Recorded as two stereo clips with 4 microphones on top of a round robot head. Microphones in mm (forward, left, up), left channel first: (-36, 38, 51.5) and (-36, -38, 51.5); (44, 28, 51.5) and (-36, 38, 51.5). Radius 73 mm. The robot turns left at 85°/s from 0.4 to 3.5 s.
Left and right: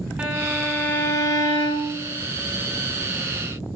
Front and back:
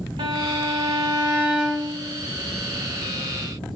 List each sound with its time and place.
0.2 s a violin: 160° right, 1.1 m; by 2.0 s 60° left, 1.1 m